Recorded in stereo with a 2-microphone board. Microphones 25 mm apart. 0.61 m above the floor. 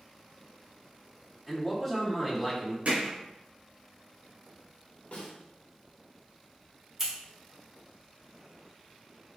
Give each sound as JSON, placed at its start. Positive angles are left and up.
{"t": 1.5, "sound": "a man speaking", "side_deg": 5, "distance_m": 1.5}
{"t": 2.9, "sound": "hammering", "side_deg": -60, "distance_m": 2.0}
{"t": 5.1, "sound": "a snare drum", "side_deg": 65, "distance_m": 1.5}
{"t": 7.0, "sound": "scissors", "side_deg": -15, "distance_m": 2.0}